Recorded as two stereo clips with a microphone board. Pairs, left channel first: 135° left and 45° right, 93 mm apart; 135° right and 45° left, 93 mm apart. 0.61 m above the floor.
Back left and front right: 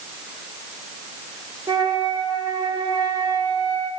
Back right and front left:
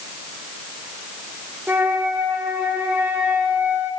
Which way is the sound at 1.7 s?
20° right.